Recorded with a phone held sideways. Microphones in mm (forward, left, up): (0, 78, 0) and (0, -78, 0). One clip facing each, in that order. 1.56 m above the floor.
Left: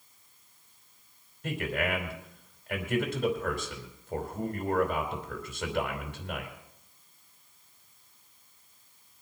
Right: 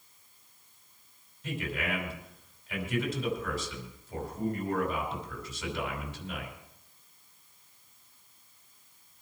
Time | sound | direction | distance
1.4 | a man speaking | 65° left (ahead or behind) | 4.5 m